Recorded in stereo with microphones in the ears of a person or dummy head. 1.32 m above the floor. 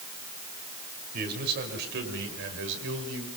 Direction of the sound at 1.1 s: 55° right (ahead or behind).